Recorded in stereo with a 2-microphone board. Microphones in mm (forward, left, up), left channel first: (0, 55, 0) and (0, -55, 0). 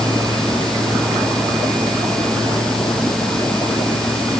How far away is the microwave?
No microwave in this recording.